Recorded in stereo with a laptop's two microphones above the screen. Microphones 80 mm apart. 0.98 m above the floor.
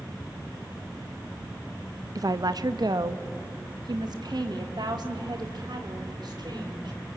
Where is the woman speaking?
50° right (ahead or behind), 0.6 m; by 7.2 s 65° right (ahead or behind), 3.5 m.